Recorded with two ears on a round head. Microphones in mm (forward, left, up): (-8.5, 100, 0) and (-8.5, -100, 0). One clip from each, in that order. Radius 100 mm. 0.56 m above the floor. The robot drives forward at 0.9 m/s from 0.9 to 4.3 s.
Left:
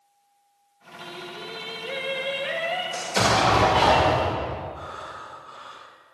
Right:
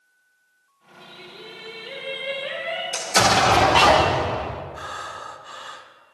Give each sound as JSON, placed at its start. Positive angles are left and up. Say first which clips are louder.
{"t": 1.0, "sound": "singing", "louder": "left 4 dB", "side_deg": 55, "distance_m": 1.6}
{"t": 2.9, "sound": "an explosion", "louder": "right 5 dB", "side_deg": -35, "distance_m": 1.4}
{"t": 4.7, "sound": "breathing", "louder": "right 4 dB", "side_deg": -60, "distance_m": 0.8}